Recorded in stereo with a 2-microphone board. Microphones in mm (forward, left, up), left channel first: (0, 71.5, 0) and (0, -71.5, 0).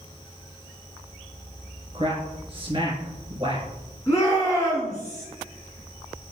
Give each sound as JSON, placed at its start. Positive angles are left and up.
{"t": 1.9, "sound": "a man speaking", "side_deg": -35, "distance_m": 1.6}
{"t": 4.1, "sound": "a shout", "side_deg": 20, "distance_m": 1.4}